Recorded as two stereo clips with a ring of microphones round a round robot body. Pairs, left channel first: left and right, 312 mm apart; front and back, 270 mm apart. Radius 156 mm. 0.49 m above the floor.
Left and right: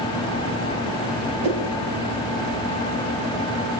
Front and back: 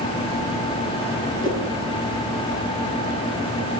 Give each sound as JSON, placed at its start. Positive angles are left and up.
{"t": 1.4, "sound": "a whoosh", "azimuth_deg": -80, "distance_m": 7.0}